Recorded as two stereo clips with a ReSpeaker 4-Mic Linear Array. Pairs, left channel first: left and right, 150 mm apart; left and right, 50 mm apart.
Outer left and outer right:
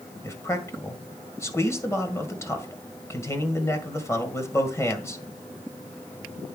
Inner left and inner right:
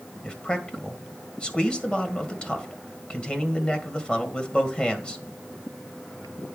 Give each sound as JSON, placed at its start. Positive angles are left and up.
{"t": 0.2, "sound": "a man speaking", "side_deg": 20, "distance_m": 1.9}